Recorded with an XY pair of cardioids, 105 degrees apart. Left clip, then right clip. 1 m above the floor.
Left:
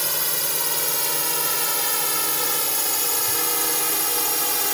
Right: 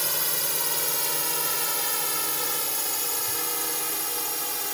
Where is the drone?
20° left; by 4.7 s 50° left.